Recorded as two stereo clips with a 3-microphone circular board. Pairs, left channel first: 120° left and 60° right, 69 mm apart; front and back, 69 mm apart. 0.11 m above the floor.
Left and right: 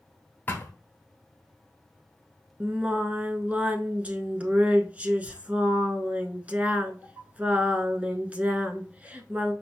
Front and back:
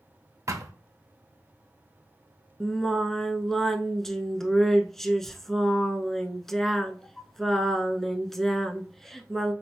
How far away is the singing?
About 0.7 m.